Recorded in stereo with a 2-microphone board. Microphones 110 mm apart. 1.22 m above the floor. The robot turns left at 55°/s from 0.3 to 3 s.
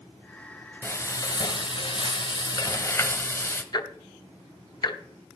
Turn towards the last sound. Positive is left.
turn(degrees=40)  # may be behind; listen again after turning